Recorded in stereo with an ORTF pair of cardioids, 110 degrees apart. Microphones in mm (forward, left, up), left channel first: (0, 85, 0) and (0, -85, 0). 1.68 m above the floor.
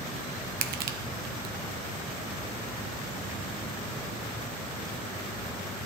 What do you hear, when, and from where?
0.6 s crushing: 70° right, 1.3 m